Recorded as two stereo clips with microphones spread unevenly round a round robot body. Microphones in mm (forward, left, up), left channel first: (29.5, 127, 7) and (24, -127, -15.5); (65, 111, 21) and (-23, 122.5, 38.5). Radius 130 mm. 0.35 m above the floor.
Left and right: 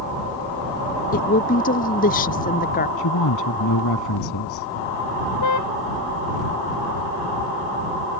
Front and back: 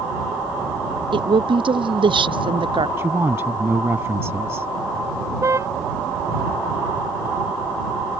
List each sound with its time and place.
1.1 s a woman speaking: 150° left
3.0 s a woman speaking: 110° left
5.4 s a car horn: 115° left